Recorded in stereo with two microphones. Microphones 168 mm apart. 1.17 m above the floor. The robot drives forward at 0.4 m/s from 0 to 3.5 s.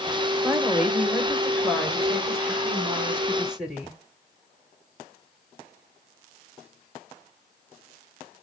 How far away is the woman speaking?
About 0.8 m.